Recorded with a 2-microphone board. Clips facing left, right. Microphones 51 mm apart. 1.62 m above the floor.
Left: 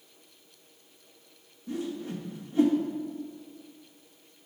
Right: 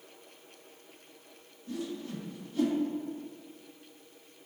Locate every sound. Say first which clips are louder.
1.7 s a whoosh: left 3 dB; 25° left (ahead or behind), 1.3 m